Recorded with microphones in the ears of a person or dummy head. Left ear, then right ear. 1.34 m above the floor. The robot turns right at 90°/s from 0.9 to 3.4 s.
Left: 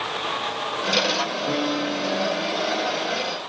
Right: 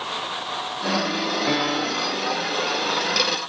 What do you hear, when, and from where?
1.5 s a piano: 80° right, 0.7 m; by 2.2 s 15° right, 0.7 m